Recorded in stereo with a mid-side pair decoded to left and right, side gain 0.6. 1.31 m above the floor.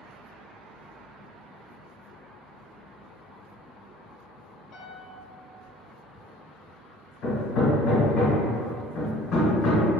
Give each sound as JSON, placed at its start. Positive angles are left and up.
{"t": 4.7, "sound": "a piano", "azimuth_deg": 60, "distance_m": 0.6}
{"t": 7.2, "sound": "hammering", "azimuth_deg": 55, "distance_m": 1.1}